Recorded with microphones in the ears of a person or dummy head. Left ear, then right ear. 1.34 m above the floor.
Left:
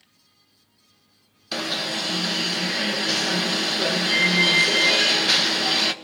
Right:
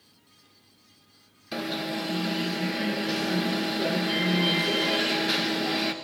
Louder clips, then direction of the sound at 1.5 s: Left 5 dB; 35° left (ahead or behind).